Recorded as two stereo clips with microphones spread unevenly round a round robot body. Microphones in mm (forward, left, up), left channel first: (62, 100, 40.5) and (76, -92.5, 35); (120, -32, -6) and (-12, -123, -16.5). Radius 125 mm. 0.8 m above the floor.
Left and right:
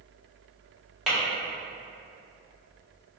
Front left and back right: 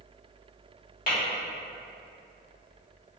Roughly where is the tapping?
Ahead.